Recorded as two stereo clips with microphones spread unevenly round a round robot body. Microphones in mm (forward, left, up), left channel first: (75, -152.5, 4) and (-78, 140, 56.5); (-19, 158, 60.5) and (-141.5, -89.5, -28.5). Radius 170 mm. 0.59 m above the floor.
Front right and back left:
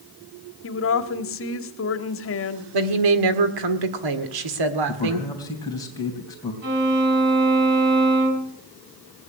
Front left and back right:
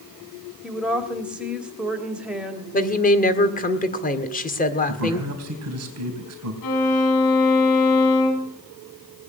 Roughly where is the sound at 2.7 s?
Behind left.